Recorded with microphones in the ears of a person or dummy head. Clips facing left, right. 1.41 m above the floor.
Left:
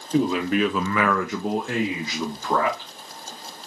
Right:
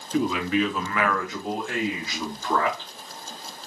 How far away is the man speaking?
About 1.4 m.